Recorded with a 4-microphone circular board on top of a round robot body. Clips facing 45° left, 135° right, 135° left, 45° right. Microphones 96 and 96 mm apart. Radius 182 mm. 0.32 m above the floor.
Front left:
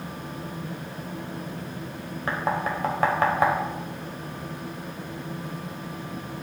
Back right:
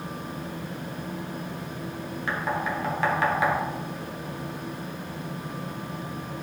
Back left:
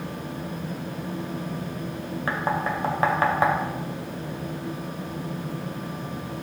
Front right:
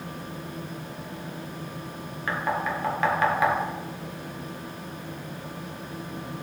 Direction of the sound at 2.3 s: 85° left.